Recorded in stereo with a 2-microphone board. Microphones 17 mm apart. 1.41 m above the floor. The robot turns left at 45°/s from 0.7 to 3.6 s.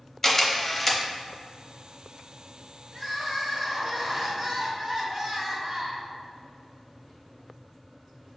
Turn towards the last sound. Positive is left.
turn(degrees=-5)